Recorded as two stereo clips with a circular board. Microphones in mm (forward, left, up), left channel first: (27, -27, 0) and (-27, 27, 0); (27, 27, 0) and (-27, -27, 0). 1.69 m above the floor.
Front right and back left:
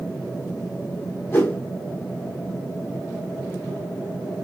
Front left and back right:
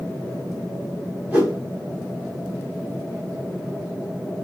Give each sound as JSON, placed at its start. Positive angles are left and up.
{"t": 1.3, "sound": "a whoosh", "azimuth_deg": -75, "distance_m": 1.6}